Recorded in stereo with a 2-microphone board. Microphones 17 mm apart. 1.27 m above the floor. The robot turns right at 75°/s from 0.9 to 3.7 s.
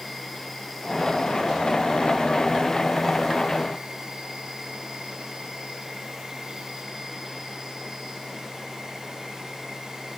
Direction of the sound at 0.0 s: 15° left.